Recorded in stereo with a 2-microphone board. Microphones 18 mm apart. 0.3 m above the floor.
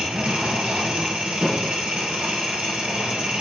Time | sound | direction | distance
0.0 | an engine running | 80° right | 4 m